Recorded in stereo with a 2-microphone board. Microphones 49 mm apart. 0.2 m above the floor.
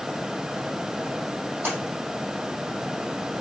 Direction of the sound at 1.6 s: 40° right (ahead or behind).